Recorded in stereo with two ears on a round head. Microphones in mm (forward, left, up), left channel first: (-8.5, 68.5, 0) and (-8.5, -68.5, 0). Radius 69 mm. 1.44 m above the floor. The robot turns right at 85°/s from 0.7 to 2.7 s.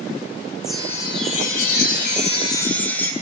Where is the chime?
5° right, 2.5 m; by 3.1 s 165° left, 2.5 m.